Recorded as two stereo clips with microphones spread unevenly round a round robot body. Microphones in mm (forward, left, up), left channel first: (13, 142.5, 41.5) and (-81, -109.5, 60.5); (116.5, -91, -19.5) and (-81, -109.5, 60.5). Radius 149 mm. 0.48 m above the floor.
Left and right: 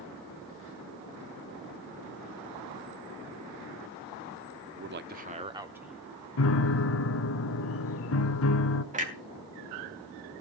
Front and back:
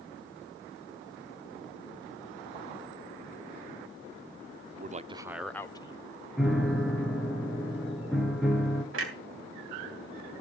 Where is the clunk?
170° right, 3 m.